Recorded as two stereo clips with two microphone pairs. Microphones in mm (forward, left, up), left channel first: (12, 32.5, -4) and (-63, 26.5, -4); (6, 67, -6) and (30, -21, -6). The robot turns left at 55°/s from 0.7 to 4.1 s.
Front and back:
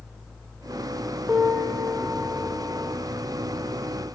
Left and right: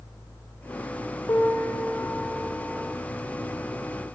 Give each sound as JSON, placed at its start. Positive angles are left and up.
{"t": 1.3, "sound": "a piano", "azimuth_deg": 100, "distance_m": 0.9}